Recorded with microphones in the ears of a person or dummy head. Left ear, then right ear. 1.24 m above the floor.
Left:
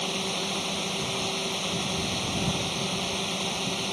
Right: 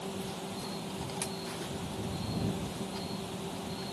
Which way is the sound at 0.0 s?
75° left (ahead or behind).